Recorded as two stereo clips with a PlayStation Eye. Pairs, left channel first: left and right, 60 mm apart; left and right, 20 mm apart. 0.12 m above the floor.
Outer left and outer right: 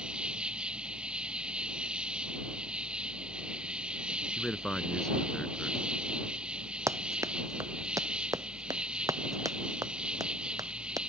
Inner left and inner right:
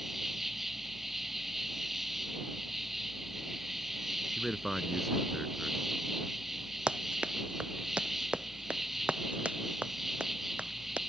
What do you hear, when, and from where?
0.0 s an insect: 15° right (ahead or behind)
4.4 s a man speaking: 10° left (ahead or behind)
6.9 s running footsteps: 55° right (ahead or behind); by 11.0 s 85° right